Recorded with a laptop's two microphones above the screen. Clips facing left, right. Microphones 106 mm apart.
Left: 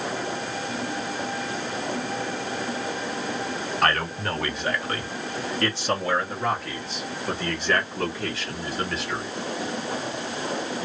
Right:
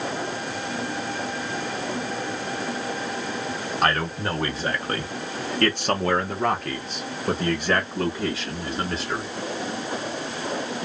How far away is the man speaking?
About 1.2 m.